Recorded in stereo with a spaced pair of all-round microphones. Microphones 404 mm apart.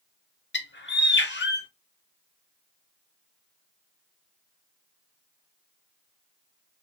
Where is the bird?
25° left (ahead or behind), 0.8 m.